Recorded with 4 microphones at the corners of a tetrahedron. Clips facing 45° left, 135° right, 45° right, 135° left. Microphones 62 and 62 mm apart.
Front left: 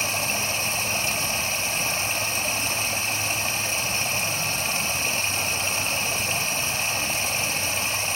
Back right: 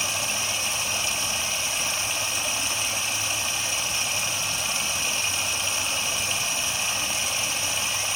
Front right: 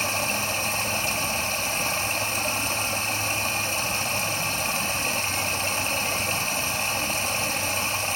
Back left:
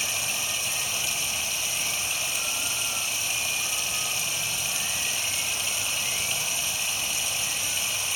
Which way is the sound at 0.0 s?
Straight ahead.